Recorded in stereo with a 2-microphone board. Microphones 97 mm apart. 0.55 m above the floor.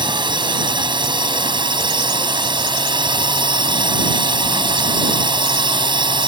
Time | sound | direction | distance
0.0 | a drone | 55° right (ahead or behind) | ?